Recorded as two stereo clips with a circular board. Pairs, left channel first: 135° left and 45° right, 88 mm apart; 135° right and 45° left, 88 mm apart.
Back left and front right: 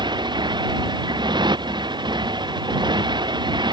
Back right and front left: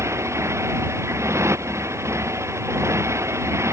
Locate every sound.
0.0 s a motorcycle: 10° right